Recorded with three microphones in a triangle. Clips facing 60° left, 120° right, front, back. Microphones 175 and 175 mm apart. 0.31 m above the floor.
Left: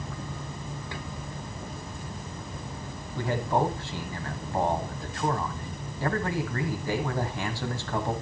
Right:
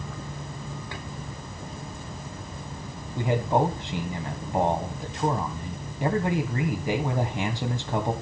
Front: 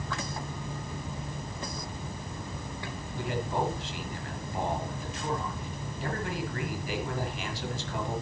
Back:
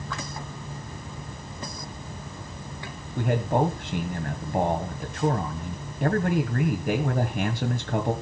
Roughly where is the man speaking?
Behind.